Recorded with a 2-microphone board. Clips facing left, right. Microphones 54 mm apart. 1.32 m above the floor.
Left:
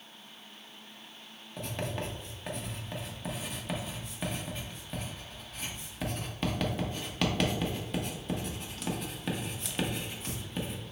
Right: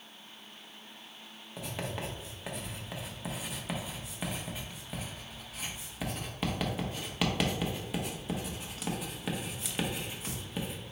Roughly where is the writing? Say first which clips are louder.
Left 2 dB; centre.